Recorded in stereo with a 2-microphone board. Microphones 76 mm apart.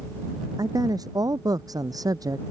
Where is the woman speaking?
55° right (ahead or behind); by 2.4 s 50° right (ahead or behind).